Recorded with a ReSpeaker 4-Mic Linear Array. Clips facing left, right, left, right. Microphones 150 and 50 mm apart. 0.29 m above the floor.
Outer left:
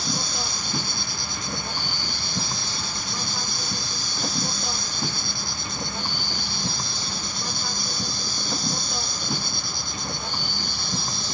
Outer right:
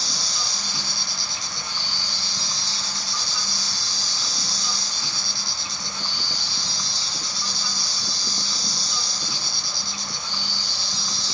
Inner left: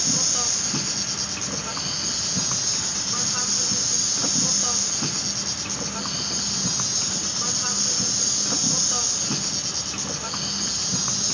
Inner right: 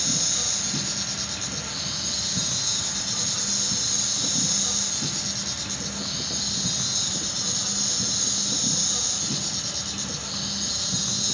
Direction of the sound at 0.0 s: 50° left (ahead or behind).